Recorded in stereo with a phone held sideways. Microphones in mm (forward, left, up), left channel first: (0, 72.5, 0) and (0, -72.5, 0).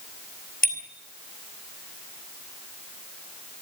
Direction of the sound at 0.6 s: 75° left (ahead or behind).